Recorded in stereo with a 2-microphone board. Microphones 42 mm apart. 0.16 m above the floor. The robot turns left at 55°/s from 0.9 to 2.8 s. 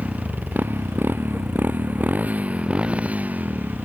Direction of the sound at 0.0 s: 35° right (ahead or behind).